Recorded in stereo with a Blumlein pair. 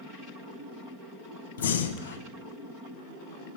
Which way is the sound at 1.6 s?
65° left.